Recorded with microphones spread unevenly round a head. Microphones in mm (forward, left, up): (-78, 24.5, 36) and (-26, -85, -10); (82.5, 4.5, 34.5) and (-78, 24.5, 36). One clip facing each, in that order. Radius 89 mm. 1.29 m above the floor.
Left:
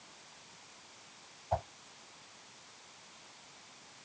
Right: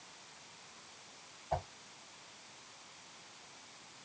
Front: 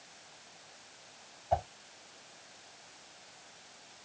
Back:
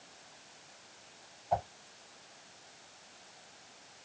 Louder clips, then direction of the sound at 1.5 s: Left 3 dB, front 1 dB; 65° left.